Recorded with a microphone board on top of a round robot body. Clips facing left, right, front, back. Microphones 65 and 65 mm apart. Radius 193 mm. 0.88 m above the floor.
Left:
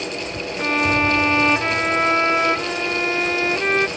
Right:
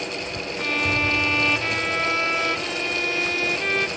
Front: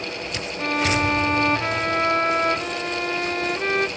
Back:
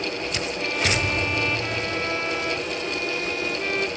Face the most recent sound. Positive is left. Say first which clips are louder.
# left 5 dB, front 5 dB
turn(degrees=35)